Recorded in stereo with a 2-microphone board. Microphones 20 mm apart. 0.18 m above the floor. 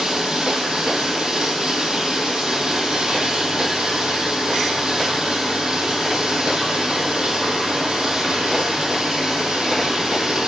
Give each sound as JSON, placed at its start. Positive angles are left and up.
{"t": 0.0, "sound": "running water", "side_deg": -45, "distance_m": 2.0}